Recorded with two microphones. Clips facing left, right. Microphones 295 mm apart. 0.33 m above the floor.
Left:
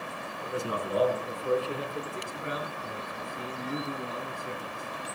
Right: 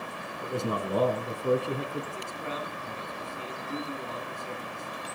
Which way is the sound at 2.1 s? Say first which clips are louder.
Left 1 dB; 20° left (ahead or behind).